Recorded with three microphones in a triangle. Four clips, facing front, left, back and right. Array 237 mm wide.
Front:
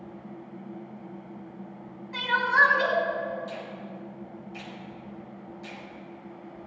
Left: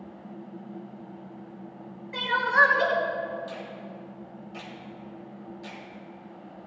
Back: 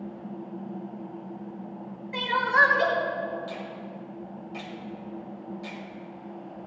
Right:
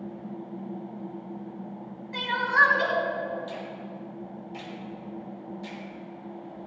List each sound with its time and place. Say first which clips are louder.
2.1 s crying: left 1 dB, even; 150° left, 4 m
3.5 s a finger snap: right 2 dB, back 1 dB; 165° left, 3.5 m